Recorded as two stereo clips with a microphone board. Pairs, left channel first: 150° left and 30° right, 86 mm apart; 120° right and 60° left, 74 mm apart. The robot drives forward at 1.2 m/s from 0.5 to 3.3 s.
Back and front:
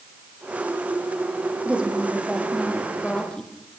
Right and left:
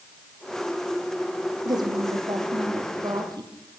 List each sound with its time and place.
1.6 s a woman speaking: 45° left, 4.5 m; by 3.5 s 70° left, 3.5 m